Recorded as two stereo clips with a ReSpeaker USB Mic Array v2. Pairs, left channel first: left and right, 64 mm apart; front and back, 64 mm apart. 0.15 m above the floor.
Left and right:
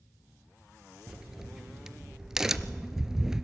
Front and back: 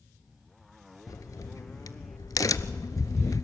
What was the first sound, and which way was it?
A crack, 10° right.